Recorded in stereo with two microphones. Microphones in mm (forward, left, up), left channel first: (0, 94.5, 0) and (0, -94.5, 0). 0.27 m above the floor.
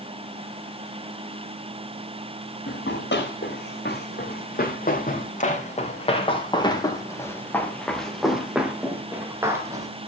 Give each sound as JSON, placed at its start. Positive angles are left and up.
{"t": 2.7, "sound": "running footsteps", "side_deg": 70, "distance_m": 6.0}